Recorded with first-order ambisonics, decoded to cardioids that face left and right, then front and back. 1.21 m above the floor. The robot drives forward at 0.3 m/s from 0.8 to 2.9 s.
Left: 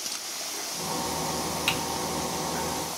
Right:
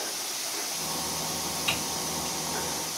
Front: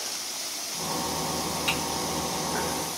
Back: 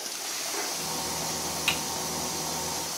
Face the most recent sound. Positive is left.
turn(degrees=130)